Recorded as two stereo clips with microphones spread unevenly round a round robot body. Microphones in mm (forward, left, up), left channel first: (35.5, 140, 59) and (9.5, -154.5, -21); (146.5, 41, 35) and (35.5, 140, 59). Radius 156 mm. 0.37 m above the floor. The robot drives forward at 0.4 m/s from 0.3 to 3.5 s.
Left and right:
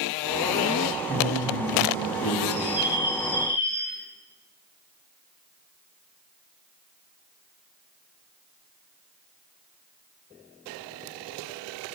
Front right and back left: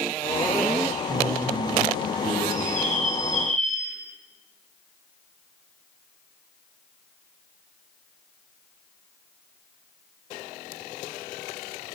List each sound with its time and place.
1.1 s a man speaking: 170° left, 1.8 m; by 2.4 s 175° left, 2 m
2.5 s a bird: 20° right, 1.7 m; by 4.0 s 25° right, 1.3 m